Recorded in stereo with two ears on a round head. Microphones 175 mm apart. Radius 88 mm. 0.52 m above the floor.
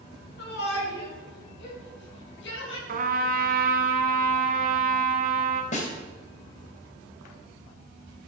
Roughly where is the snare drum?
Left.